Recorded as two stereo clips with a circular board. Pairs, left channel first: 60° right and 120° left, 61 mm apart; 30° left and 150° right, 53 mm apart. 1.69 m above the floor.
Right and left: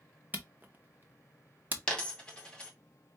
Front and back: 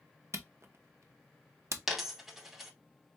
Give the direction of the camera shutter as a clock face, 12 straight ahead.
6 o'clock.